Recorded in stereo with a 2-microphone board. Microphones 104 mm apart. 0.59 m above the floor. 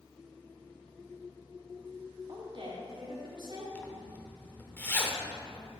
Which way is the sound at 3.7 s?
15° left (ahead or behind).